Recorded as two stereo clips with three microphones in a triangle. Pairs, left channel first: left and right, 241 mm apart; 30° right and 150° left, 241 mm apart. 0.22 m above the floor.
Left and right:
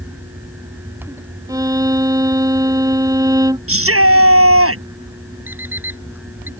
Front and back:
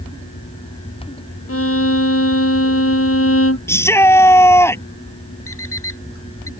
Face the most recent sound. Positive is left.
turn(degrees=-10)